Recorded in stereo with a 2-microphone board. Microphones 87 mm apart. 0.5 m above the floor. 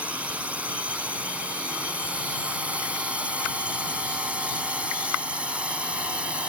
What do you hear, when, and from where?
0.0 s a drone: 15° right (ahead or behind)